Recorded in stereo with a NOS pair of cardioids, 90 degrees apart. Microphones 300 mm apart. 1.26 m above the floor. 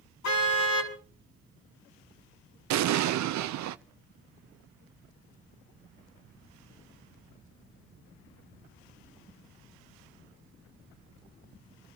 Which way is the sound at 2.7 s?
70° right.